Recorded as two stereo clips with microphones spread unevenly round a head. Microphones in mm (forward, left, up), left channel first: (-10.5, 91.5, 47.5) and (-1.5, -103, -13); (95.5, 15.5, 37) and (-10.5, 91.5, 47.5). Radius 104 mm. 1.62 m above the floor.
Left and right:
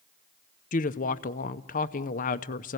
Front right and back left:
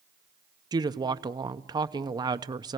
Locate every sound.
0.7 s a woman speaking: 100° left, 0.6 m